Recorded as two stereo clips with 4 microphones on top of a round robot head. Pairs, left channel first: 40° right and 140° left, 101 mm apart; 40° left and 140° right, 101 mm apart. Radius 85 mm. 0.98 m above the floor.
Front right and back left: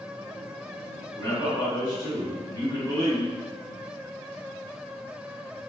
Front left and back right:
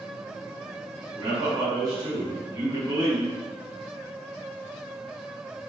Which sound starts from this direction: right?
A man speaking, at 1.2 s.